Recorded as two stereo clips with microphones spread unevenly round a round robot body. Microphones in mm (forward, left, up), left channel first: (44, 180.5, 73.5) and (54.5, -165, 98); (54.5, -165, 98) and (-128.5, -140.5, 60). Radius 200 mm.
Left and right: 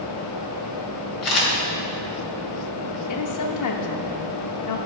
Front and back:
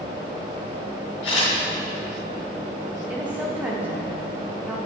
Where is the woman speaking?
95° left, 1.4 m.